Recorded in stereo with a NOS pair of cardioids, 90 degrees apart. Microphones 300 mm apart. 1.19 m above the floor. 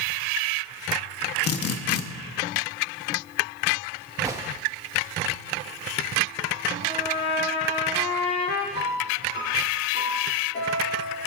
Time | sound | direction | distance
1.4 | a drill | 55° left | 1.2 m
4.2 | a gunshot | 10° right | 1.7 m
6.8 | a trumpet | 45° left | 5 m
8.7 | a piano | 45° left | 6 m